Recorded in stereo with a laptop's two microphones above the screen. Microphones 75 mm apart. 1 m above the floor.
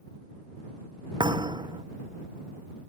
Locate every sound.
1.2 s a thud: 80° right